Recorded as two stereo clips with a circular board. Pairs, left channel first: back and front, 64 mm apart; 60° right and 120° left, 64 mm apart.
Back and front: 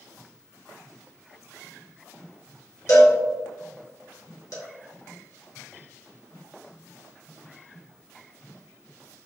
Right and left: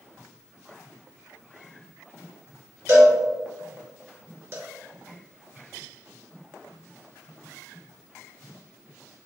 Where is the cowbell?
165° left, 0.9 m.